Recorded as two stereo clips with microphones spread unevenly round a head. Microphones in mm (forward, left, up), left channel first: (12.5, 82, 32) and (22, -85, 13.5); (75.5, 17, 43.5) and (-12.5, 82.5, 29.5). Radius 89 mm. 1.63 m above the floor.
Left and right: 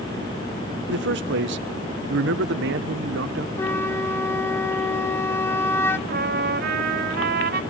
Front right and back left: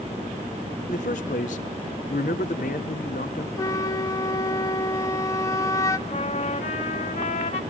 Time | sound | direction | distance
0.9 | a man speaking | 70° right | 1.1 m
3.6 | a flute | 20° left | 0.9 m
6.1 | a trumpet | 60° right | 1.6 m